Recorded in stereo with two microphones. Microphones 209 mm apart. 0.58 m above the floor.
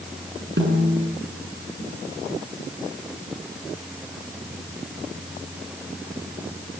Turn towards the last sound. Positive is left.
turn(degrees=-60)  # may be behind; listen again after turning